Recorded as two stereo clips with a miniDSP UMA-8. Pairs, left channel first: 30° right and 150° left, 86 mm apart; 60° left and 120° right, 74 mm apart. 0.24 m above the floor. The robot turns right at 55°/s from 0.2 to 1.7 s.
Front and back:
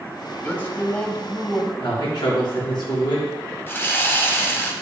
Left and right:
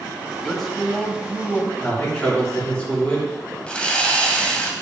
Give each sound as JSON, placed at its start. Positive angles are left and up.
{"t": 0.4, "sound": "a man speaking", "azimuth_deg": -25, "distance_m": 1.3}
{"t": 1.8, "sound": "a man speaking", "azimuth_deg": -15, "distance_m": 3.5}
{"t": 3.7, "sound": "sawing", "azimuth_deg": 0, "distance_m": 1.2}